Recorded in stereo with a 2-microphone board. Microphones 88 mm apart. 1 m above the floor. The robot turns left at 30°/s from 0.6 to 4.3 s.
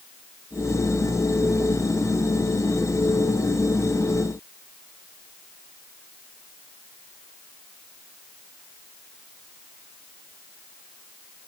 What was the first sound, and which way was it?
Only background noise.